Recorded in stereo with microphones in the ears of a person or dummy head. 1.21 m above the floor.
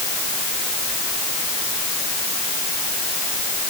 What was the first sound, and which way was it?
Only background noise.